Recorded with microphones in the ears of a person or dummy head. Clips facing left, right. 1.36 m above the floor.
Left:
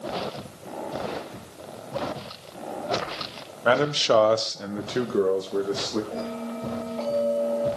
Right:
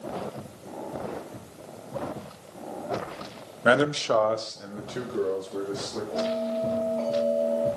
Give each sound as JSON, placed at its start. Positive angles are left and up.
{"t": 3.6, "sound": "a man speaking", "side_deg": -30, "distance_m": 0.7}
{"t": 6.1, "sound": "a bell", "side_deg": 25, "distance_m": 9.5}